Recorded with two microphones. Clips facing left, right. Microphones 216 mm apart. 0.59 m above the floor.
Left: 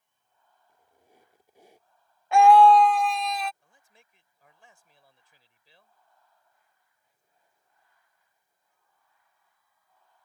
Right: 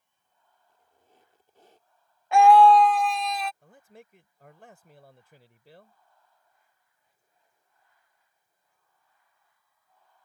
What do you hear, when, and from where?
0.7 s a squeak: 10° left (ahead or behind)
2.3 s a scream: centre (ahead or behind)
3.6 s a man speaking: 60° right (ahead or behind)